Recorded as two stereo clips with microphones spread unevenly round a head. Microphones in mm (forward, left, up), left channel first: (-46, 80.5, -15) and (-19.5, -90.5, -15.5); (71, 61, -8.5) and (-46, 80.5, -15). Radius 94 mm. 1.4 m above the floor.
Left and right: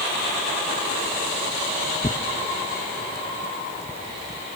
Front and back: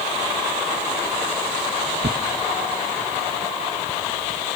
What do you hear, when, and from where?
2.0 s tearing paper: 170° left, 0.9 m